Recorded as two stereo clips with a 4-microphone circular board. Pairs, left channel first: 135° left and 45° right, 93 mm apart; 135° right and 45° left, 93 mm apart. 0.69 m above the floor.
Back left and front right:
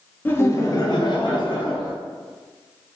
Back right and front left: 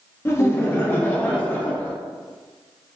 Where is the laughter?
170° right, 0.6 m; by 1.9 s 155° left, 1.3 m.